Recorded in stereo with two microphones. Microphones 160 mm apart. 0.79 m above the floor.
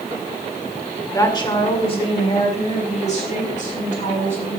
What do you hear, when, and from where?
1.1 s a woman speaking: 20° left (ahead or behind), 2 m; by 4.6 s 55° left (ahead or behind), 5 m